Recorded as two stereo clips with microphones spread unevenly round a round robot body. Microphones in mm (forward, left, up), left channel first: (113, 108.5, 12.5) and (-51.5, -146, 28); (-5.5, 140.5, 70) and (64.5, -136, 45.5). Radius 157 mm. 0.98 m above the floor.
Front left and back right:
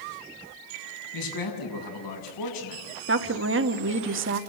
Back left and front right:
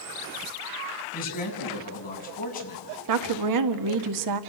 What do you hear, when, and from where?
1.1 s a man speaking: 45° left, 7 m
3.1 s a woman speaking: 70° right, 1.6 m